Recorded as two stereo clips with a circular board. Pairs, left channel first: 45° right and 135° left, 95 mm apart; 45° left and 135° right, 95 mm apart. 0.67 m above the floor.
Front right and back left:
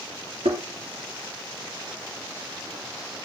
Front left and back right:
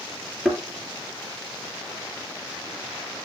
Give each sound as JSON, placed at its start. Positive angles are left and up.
{"t": 0.5, "sound": "a thud", "azimuth_deg": 140, "distance_m": 3.5}